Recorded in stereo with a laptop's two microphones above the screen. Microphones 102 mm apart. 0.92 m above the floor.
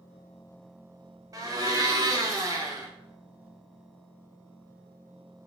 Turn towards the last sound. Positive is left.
turn(degrees=-35)  # may be behind; listen again after turning